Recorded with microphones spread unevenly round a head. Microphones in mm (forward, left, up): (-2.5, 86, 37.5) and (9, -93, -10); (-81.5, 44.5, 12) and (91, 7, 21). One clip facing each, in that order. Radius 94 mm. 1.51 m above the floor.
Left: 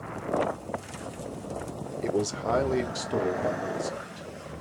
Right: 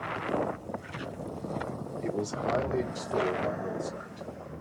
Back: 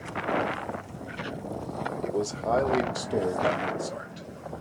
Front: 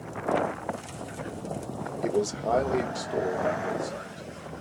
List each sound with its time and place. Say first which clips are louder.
2.0 s a man speaking: left 4 dB, front 3 dB; 55° left, 0.8 m; by 4.3 s 120° left, 1.6 m